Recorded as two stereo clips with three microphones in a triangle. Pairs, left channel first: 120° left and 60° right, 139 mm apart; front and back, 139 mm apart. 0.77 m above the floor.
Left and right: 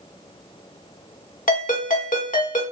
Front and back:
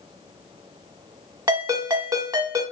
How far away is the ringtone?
About 0.9 m.